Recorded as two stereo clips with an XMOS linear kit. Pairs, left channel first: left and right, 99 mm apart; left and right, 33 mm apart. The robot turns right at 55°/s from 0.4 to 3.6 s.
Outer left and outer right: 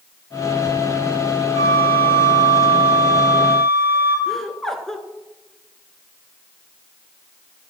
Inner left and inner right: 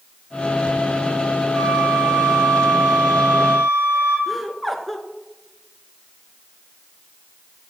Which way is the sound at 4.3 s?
5° left (ahead or behind).